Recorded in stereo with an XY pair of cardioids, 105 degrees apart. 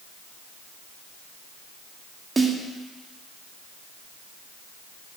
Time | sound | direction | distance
2.4 | a snare drum | 25° right | 1.8 m